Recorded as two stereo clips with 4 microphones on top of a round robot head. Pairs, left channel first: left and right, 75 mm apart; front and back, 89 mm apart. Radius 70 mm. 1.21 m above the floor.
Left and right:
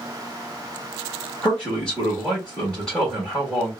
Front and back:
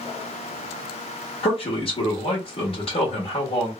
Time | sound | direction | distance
1.4 | a man speaking | 10° left | 1.4 m